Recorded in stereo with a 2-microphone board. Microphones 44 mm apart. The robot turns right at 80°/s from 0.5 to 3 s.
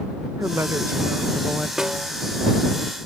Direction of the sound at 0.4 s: 95° right.